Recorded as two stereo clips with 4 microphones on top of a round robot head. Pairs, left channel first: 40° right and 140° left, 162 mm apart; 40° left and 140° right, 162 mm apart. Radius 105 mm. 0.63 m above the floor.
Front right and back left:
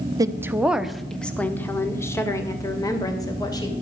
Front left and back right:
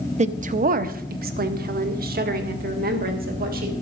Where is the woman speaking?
165° right, 0.9 m; by 3.7 s 110° right, 3 m.